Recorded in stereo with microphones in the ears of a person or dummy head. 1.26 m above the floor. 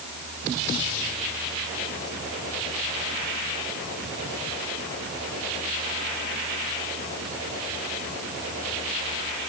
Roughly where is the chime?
No chime in this recording.